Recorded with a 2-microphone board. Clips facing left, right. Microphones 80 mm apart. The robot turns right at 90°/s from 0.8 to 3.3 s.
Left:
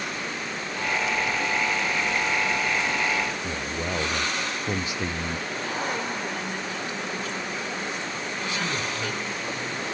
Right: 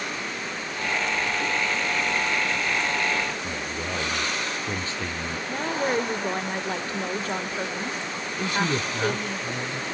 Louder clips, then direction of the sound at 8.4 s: Right 6 dB; 50° right (ahead or behind).